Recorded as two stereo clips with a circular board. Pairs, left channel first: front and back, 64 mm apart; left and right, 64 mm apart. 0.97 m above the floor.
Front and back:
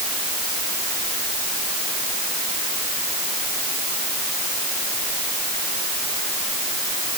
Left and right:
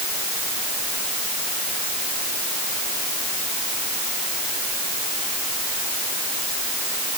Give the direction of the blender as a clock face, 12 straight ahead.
I don't hear a blender.